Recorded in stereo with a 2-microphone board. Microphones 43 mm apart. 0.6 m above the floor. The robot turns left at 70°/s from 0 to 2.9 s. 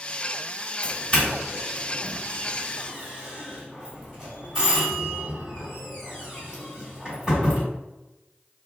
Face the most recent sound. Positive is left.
turn(degrees=-20)  # may be behind; listen again after turning